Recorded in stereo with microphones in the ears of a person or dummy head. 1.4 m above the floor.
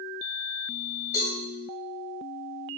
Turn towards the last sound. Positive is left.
turn(degrees=15)  # may be behind; listen again after turning